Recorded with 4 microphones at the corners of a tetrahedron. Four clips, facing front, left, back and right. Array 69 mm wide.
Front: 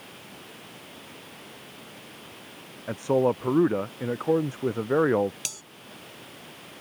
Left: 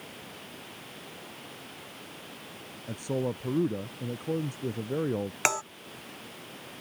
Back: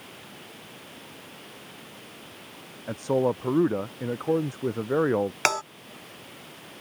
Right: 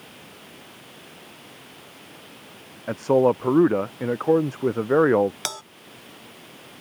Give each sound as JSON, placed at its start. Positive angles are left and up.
{"t": 2.9, "sound": "a man speaking", "azimuth_deg": -90}
{"t": 5.5, "sound": "a bell", "azimuth_deg": 170}